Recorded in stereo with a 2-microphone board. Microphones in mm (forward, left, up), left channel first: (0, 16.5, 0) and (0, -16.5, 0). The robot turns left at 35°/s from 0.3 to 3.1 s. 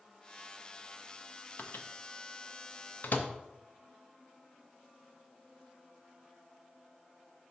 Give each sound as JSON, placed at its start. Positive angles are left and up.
{"t": 1.6, "sound": "a microwave", "side_deg": 65, "distance_m": 0.6}